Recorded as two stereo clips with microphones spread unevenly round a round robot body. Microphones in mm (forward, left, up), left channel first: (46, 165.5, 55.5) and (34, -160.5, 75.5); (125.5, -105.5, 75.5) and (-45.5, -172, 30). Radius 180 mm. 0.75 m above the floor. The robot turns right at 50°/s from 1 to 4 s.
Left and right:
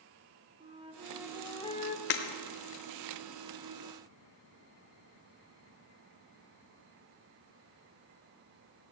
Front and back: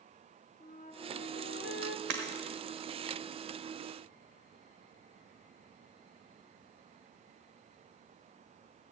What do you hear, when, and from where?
0.6 s a flute: 20° right, 1.4 m; by 2.0 s 30° left, 1.4 m
2.1 s breaking glass: 150° left, 1.0 m; by 2.2 s 155° left, 1.0 m